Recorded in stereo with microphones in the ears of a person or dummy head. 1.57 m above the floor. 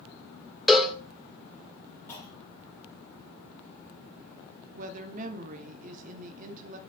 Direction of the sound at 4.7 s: 50° right (ahead or behind).